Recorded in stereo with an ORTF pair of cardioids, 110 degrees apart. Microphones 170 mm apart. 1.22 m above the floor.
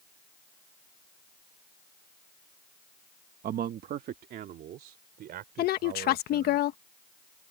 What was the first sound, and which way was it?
A man speaking, 55° right.